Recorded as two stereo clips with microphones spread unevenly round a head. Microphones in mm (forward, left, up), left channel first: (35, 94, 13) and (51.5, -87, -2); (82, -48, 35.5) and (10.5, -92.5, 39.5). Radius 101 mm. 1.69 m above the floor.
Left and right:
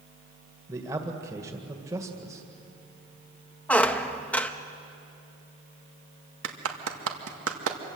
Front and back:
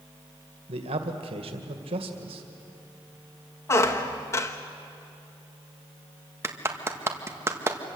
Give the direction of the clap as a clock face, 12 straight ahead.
3 o'clock.